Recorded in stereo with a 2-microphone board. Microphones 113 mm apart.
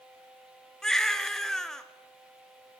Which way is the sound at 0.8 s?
5° left (ahead or behind).